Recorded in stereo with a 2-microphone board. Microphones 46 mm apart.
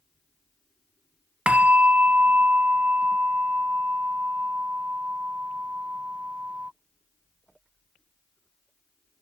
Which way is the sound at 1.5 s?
25° right (ahead or behind).